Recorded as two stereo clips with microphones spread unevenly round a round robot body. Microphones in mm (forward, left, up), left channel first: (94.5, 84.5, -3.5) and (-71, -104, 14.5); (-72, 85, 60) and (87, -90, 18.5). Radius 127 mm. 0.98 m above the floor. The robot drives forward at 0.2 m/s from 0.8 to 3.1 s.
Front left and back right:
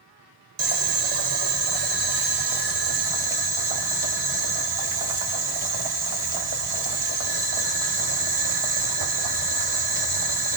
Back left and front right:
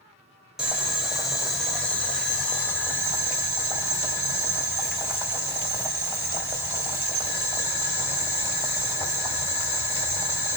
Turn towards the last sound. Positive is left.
turn(degrees=-145)